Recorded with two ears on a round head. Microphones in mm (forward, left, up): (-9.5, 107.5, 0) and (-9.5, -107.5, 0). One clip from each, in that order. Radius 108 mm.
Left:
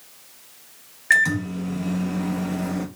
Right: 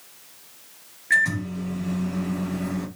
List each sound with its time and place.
1.1 s a microwave: 50° left (ahead or behind), 1.0 m